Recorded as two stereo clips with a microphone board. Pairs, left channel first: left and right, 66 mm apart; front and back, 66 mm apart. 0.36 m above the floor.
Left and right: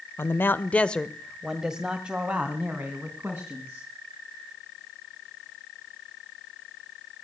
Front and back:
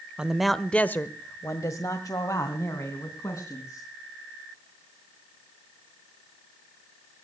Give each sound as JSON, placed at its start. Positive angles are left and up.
{"t": 0.2, "sound": "a man speaking", "azimuth_deg": 115, "distance_m": 1.1}